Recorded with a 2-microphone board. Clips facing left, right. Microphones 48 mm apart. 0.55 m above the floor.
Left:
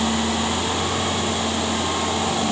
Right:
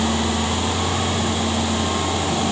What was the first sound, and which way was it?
Only background noise.